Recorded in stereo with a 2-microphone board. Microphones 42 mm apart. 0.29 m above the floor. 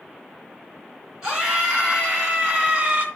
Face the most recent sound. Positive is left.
turn(degrees=-25)  # may be behind; listen again after turning